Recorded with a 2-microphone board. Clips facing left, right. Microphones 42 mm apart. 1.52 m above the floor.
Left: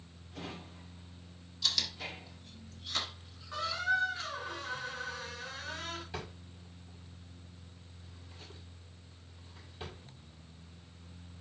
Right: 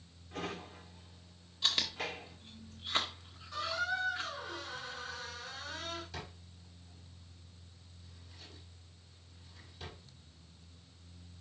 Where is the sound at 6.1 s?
35° left (ahead or behind), 6.5 m.